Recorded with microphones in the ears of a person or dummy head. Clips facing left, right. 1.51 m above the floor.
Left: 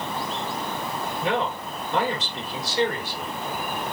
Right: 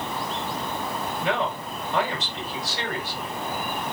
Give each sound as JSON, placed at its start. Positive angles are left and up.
{"t": 1.2, "sound": "a man speaking", "side_deg": 85, "distance_m": 7.0}